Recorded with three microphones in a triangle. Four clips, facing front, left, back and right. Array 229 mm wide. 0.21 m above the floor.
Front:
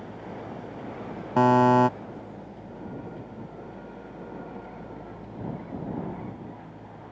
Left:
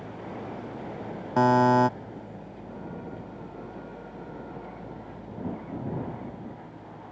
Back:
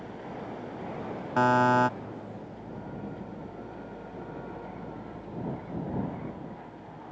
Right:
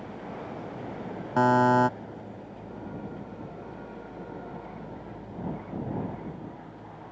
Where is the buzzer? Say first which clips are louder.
Left 1 dB, front 4 dB; 15° left.